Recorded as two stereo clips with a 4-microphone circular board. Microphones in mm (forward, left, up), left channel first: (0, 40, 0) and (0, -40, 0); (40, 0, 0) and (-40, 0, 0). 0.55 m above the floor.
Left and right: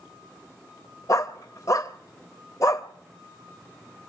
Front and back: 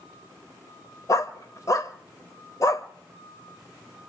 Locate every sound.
1.1 s a dog barking: 45° left, 0.9 m